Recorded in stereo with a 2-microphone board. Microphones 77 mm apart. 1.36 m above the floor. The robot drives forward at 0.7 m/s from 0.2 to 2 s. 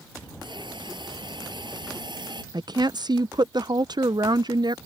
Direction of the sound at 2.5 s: 65° right (ahead or behind).